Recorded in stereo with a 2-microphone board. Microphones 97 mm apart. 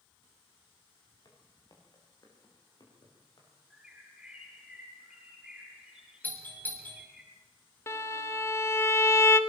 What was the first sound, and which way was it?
Footsteps, 40° left (ahead or behind).